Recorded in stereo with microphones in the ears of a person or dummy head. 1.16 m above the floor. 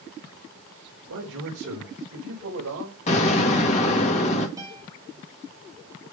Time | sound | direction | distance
1.1 | a man speaking | 70° right (ahead or behind) | 3.5 m
3.1 | an explosion | 35° left (ahead or behind) | 2 m
4.6 | a guitar | 15° right (ahead or behind) | 1.8 m